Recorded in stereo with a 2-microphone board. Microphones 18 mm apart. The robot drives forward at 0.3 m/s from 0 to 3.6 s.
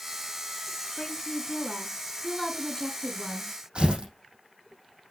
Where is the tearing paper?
60° right (ahead or behind), 5.5 m.